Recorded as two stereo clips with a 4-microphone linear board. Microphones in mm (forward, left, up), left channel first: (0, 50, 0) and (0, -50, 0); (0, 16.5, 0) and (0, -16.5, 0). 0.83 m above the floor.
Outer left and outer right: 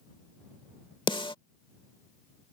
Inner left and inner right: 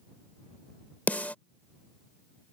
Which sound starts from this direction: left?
A snare drum, at 1.1 s.